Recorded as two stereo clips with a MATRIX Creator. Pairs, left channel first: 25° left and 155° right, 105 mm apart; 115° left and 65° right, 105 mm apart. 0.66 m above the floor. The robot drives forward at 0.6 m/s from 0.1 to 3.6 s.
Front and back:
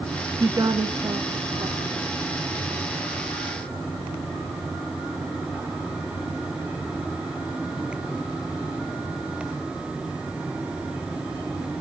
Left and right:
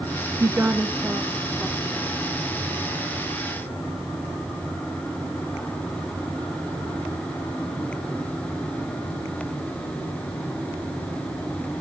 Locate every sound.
0.4 s a woman speaking: 115° right, 0.6 m; by 2.2 s 165° right, 1.3 m